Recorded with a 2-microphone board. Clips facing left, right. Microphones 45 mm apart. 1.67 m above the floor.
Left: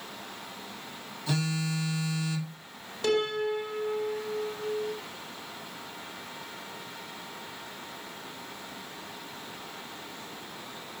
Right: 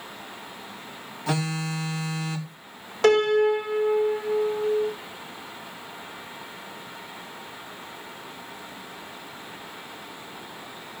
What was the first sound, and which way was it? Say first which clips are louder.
A phone buzzing: right 3 dB; 60° right (ahead or behind).